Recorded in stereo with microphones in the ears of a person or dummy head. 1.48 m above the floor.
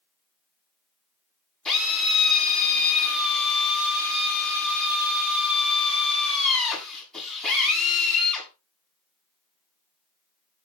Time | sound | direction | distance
1.6 | a drill | 5° left (ahead or behind) | 7.5 m